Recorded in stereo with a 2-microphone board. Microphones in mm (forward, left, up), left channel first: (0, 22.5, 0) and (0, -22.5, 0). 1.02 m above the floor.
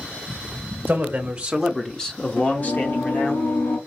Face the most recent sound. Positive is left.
turn(degrees=60)  # may be behind; listen again after turning